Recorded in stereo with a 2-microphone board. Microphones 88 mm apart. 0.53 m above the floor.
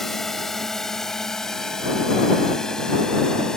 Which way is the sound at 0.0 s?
5° left (ahead or behind).